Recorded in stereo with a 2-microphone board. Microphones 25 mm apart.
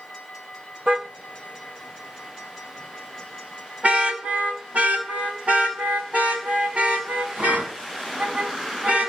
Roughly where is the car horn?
Right.